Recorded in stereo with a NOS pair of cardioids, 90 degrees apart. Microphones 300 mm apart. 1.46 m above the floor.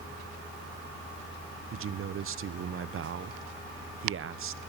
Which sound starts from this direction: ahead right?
A man speaking, at 1.7 s.